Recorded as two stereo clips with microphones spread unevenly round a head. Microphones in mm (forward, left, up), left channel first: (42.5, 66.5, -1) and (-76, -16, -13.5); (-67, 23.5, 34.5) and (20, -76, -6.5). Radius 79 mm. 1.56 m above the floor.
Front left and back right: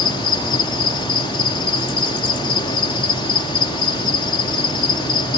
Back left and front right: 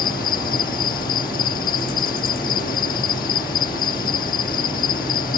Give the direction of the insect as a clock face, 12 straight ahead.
9 o'clock.